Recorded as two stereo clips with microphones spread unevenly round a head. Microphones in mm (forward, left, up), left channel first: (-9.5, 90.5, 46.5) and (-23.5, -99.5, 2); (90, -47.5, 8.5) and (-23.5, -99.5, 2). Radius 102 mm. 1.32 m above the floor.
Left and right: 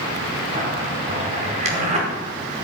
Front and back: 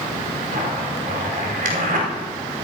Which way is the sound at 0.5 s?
150° right.